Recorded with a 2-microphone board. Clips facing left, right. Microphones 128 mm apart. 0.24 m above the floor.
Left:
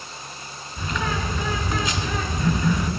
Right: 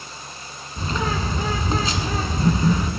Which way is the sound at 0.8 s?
30° right (ahead or behind).